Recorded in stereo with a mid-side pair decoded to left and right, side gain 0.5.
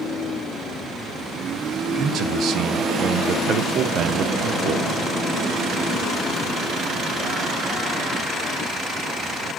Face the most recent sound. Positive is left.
turn(degrees=-60)